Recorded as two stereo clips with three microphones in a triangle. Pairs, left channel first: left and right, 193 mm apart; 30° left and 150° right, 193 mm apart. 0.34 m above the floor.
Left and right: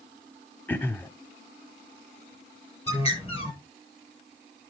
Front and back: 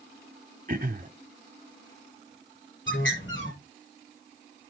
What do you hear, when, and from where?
0.7 s throat clearing: 170° left, 0.9 m
2.9 s a bird: 30° left, 7 m